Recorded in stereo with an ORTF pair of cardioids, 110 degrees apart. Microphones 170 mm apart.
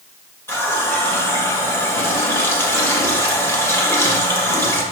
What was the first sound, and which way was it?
A running tap, 15° left.